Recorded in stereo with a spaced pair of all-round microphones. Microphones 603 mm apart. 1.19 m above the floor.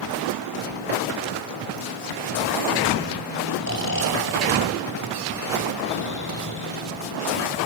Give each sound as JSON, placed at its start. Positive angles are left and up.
{"t": 3.6, "sound": "snoring", "side_deg": 25, "distance_m": 2.0}